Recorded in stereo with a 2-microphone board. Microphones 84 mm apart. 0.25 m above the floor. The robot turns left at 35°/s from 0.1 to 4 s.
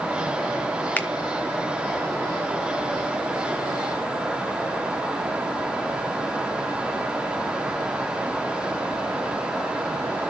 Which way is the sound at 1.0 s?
25° left (ahead or behind).